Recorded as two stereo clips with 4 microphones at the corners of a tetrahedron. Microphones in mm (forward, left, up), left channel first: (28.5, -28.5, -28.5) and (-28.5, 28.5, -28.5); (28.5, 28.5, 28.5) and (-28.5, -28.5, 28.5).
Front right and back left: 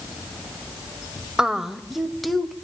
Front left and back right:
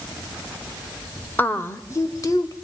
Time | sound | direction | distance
1.4 | a woman speaking | 65° left | 1.0 m